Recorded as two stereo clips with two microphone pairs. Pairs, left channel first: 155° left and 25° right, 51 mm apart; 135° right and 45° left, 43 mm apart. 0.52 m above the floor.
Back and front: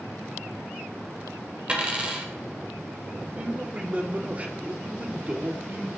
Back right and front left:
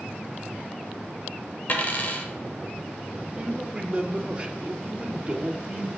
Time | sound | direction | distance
1.7 | a dropped coin | 90° right | 1.0 m
3.3 | a man speaking | 5° left | 0.8 m